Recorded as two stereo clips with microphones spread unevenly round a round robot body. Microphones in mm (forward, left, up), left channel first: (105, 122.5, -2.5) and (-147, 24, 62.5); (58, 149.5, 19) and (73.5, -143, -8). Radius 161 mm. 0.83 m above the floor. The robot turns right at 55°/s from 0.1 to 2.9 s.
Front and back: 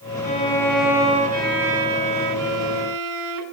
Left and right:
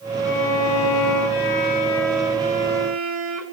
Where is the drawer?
No drawer in this recording.